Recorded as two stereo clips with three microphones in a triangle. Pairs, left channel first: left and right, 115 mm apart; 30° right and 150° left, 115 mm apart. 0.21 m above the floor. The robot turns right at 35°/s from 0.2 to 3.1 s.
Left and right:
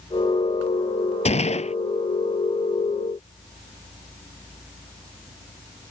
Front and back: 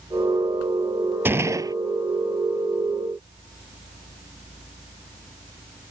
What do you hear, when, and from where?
1.2 s a gunshot: 80° left; by 1.8 s 95° left